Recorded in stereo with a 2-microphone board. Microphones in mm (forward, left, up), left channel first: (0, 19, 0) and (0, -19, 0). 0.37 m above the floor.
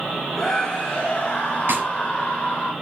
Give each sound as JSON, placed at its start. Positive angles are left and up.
{"t": 0.3, "sound": "a scream", "side_deg": 15, "distance_m": 2.0}
{"t": 1.7, "sound": "a snare drum", "side_deg": -70, "distance_m": 2.5}